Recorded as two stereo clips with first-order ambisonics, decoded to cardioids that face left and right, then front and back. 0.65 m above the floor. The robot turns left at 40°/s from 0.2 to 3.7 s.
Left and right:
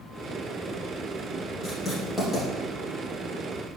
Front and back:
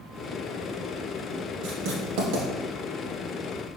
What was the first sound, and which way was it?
Writing, 165° right.